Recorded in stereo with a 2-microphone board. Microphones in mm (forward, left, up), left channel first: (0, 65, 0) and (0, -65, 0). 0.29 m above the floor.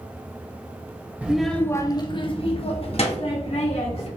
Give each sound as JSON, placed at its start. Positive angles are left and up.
{"t": 1.2, "sound": "a child speaking", "side_deg": -10, "distance_m": 0.6}